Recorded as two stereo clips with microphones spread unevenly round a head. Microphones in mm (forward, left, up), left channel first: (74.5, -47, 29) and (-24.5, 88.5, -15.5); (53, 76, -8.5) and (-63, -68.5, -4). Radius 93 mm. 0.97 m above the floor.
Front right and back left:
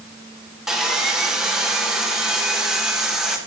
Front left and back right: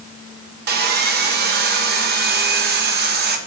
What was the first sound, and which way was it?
Sawing, 155° right.